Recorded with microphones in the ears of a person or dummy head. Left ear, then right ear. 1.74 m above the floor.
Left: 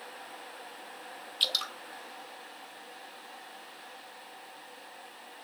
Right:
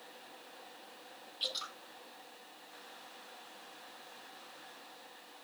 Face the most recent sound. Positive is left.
turn(degrees=45)  # may be behind; listen again after turning